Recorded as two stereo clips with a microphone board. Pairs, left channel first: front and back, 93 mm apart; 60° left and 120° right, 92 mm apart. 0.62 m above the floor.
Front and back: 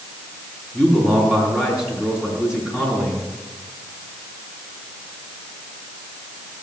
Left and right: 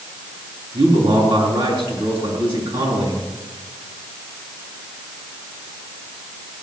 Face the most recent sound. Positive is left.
turn(degrees=-95)